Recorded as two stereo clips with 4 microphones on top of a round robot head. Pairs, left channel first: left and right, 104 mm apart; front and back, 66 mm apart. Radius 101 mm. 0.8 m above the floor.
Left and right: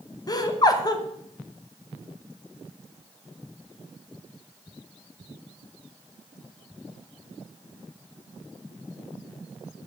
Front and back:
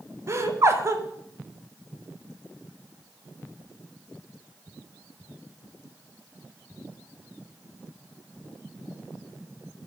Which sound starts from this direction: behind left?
Laughter, at 0.3 s.